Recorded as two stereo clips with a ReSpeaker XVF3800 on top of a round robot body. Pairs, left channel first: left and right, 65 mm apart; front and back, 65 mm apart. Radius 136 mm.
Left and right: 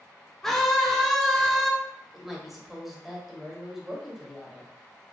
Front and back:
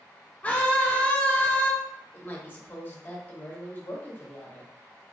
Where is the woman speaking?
5° right, 1.0 m.